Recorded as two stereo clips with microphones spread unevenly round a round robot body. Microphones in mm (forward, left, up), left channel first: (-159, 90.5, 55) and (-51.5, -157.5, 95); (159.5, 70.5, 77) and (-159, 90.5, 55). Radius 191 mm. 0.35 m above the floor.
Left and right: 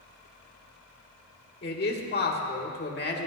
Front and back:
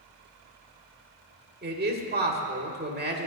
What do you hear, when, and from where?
1.6 s a man speaking: 135° left, 2 m